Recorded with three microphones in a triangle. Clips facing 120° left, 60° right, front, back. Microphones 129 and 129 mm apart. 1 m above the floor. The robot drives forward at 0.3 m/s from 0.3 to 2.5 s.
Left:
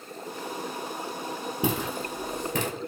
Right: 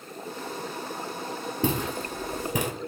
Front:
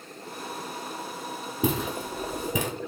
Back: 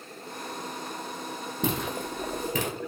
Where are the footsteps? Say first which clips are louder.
Right 1 dB, front 3 dB; 75° left, 1.0 m; by 2.7 s 30° right, 1.0 m.